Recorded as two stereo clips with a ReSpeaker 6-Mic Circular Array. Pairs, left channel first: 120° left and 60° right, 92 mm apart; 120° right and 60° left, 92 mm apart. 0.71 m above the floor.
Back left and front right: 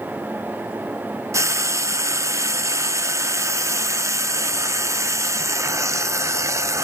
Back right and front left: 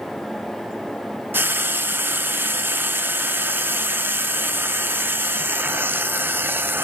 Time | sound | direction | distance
1.3 | frying | 5° right | 0.6 m